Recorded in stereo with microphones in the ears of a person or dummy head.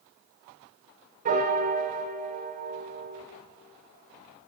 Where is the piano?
45° right (ahead or behind), 0.5 m.